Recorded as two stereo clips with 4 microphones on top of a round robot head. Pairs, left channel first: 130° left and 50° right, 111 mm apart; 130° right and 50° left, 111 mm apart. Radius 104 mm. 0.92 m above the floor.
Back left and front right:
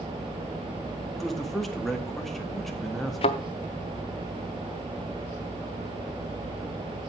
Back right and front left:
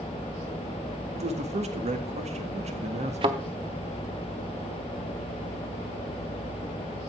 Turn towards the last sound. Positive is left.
turn(degrees=95)